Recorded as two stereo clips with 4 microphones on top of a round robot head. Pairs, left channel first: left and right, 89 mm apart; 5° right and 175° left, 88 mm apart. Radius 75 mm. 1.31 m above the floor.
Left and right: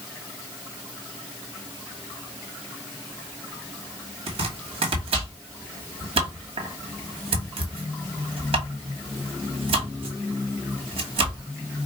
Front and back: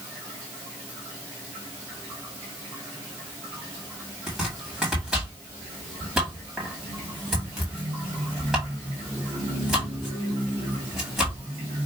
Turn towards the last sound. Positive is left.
turn(degrees=-100)